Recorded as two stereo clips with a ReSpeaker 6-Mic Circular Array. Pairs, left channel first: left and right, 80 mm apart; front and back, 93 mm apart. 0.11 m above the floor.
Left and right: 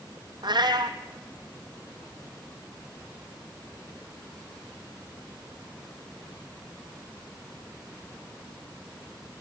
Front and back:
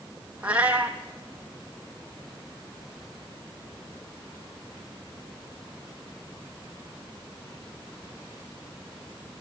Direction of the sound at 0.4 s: 105° right.